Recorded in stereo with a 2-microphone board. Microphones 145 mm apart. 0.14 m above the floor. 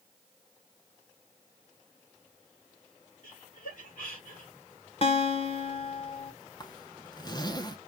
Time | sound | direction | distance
3.2 | laughter | 70° left (ahead or behind) | 5 m
5.0 | a guitar | 45° left (ahead or behind) | 1.1 m
6.6 | a zipper | 30° left (ahead or behind) | 0.7 m